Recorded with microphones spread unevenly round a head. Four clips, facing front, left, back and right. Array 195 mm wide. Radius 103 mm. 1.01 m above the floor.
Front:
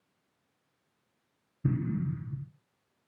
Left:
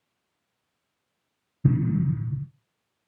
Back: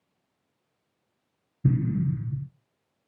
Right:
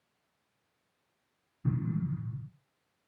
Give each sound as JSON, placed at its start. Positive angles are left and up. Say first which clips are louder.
{"t": 1.6, "sound": "an explosion", "louder": "left 9 dB, back 5 dB", "azimuth_deg": 115, "distance_m": 0.6}